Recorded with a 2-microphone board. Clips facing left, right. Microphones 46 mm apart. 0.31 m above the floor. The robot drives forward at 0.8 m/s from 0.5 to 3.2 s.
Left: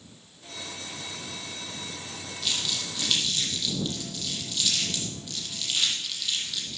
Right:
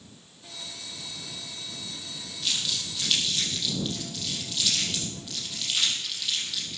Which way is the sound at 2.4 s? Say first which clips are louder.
Even; 5° right (ahead or behind).